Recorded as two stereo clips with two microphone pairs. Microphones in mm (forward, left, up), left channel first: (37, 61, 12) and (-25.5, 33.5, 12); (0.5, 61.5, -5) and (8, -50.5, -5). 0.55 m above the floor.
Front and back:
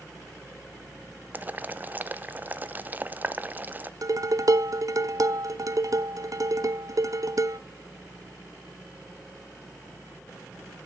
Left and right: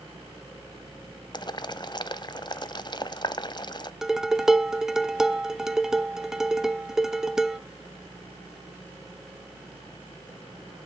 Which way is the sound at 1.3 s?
140° left.